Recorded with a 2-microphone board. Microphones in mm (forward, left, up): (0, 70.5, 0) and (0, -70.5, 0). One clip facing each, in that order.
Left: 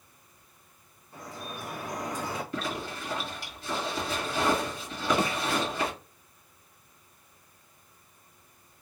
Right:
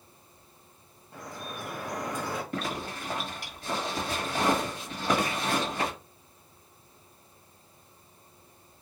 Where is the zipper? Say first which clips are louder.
Even; 55° right (ahead or behind), 1.7 m.